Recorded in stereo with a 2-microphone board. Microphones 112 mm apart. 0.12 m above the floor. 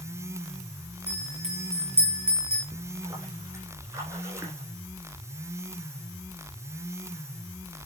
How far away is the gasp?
I don't hear a gasp.